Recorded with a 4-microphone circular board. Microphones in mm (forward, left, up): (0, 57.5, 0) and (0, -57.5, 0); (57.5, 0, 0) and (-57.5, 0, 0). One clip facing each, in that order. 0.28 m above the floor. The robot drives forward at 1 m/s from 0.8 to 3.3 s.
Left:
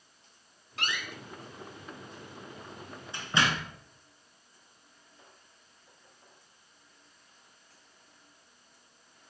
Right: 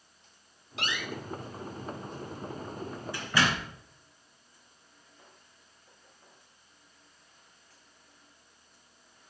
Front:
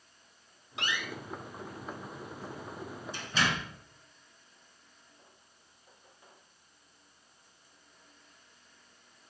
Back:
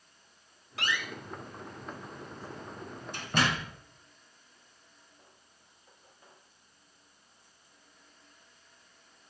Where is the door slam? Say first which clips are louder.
Right 2 dB, back 1 dB; 65° left, 1.2 m; by 3.7 s 155° left, 2.5 m.